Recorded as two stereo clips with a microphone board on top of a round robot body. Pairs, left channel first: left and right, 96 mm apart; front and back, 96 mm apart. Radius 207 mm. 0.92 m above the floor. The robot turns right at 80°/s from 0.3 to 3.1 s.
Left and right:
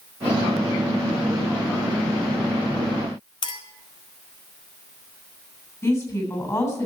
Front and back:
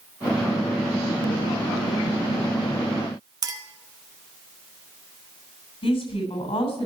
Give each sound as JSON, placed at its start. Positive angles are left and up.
{"t": 3.4, "sound": "a clink", "azimuth_deg": 130, "distance_m": 1.8}
{"t": 5.8, "sound": "a woman speaking", "azimuth_deg": 30, "distance_m": 7.0}